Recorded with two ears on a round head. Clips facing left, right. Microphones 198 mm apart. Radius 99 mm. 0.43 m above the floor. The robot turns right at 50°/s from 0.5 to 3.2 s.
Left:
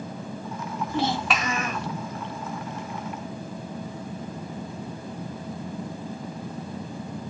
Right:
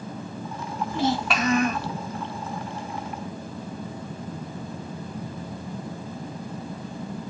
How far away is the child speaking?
About 1.4 m.